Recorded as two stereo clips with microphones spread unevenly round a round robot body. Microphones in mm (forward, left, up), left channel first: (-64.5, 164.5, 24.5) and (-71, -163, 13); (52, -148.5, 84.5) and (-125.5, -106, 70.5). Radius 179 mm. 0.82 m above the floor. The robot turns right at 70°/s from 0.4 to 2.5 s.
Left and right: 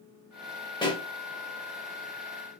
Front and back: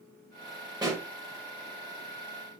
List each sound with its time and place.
0.8 s a pop: 125° left, 0.5 m; by 1.1 s 145° left, 0.5 m